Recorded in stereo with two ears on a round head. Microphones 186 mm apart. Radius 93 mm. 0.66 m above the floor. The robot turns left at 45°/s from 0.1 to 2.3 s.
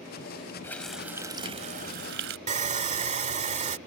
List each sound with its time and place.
0.6 s a running tap: 10° left; by 2.4 s 65° right
2.5 s sawing: 35° right (ahead or behind)